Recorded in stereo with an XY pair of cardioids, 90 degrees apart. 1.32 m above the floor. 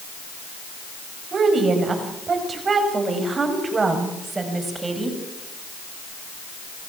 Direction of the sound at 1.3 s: 55° right.